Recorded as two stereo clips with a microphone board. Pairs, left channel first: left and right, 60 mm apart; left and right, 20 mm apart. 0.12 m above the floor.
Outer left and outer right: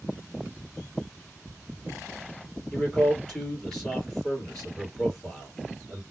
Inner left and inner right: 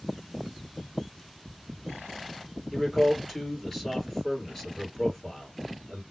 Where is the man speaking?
10° left (ahead or behind), 2.5 m.